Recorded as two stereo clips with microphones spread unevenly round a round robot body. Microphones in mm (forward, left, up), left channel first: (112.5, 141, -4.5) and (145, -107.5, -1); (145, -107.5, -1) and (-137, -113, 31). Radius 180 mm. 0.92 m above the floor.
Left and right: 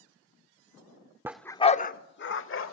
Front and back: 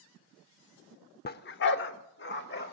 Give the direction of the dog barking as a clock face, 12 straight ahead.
12 o'clock.